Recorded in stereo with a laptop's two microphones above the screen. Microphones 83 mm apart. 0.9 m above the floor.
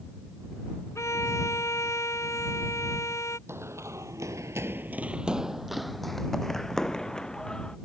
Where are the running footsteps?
35° right (ahead or behind); by 7.8 s 10° left (ahead or behind).